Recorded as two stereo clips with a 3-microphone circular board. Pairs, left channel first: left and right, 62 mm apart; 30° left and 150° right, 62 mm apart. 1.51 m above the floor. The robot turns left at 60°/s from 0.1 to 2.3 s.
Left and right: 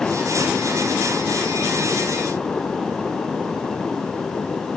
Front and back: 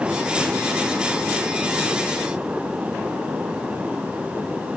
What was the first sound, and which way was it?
Only background noise.